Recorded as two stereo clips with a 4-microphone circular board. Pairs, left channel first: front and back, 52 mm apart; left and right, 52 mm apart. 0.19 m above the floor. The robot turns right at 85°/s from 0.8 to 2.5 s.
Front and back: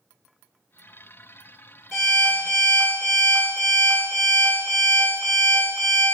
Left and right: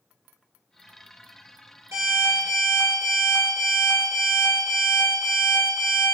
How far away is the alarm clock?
About 1.9 m.